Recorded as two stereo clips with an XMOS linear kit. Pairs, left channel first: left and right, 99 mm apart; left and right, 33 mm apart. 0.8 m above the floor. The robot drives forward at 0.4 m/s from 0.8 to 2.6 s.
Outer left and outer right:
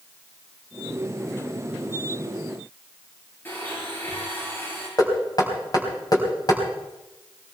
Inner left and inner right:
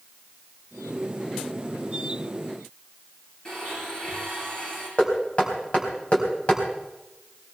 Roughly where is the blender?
Left.